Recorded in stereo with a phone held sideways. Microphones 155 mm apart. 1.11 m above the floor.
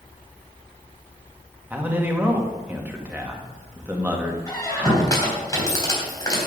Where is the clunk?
No clunk in this recording.